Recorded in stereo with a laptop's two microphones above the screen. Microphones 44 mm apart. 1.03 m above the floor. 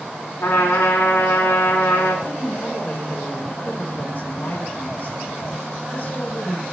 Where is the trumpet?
65° left (ahead or behind), 2.5 m.